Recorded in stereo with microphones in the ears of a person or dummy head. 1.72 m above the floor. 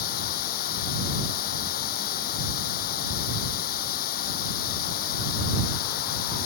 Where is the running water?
65° left (ahead or behind).